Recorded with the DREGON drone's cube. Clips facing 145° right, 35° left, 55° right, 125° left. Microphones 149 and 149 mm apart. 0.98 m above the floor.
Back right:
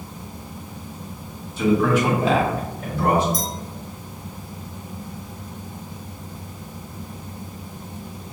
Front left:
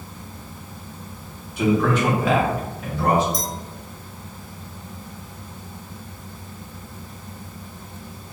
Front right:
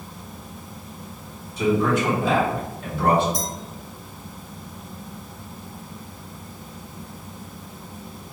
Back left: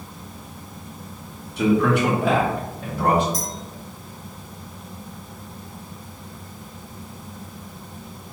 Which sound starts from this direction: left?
A man speaking, at 1.6 s.